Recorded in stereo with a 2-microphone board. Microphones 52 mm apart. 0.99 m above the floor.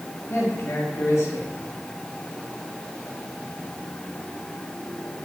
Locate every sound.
0.3 s a man speaking: 55° left (ahead or behind), 1.6 m